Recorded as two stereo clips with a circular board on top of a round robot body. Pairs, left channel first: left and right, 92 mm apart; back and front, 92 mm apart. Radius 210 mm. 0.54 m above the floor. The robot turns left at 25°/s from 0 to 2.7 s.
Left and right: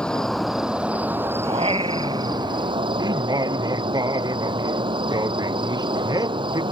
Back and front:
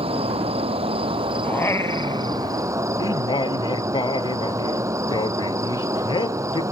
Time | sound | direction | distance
0.0 | an insect | 10° left | ?
1.4 | singing | 110° right | ?